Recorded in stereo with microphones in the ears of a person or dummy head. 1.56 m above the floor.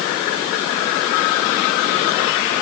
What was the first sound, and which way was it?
Only background noise.